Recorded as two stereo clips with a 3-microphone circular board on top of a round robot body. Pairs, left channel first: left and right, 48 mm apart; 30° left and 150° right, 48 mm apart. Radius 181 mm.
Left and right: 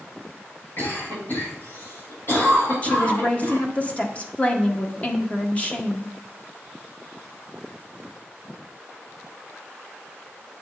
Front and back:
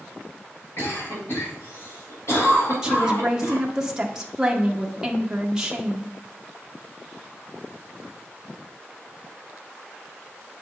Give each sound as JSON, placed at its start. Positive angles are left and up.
{"t": 0.8, "sound": "a cough", "azimuth_deg": 50, "distance_m": 4.0}
{"t": 2.8, "sound": "a woman speaking", "azimuth_deg": 140, "distance_m": 1.3}